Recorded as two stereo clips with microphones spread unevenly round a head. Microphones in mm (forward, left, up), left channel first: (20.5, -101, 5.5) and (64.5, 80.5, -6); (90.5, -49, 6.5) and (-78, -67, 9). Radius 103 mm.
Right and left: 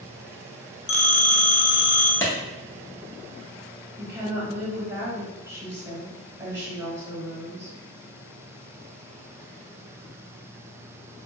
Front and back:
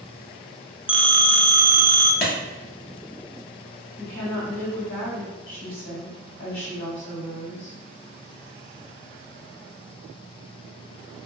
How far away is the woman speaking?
About 1.9 m.